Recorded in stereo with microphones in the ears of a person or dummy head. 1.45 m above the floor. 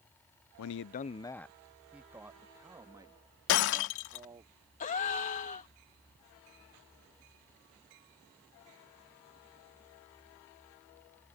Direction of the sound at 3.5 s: 65° left (ahead or behind).